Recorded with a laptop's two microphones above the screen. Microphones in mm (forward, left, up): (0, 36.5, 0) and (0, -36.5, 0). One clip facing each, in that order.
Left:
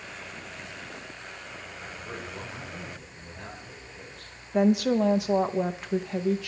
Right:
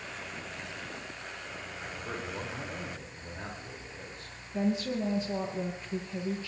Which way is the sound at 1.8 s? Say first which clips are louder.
Right 1 dB; 30° right (ahead or behind).